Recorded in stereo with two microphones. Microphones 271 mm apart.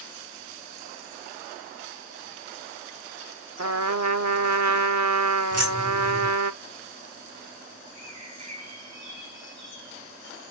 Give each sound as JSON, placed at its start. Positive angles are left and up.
{"t": 3.6, "sound": "a trumpet", "side_deg": -75, "distance_m": 0.8}
{"t": 5.5, "sound": "keys jangling", "side_deg": -60, "distance_m": 4.5}
{"t": 7.9, "sound": "a bird", "side_deg": -75, "distance_m": 3.5}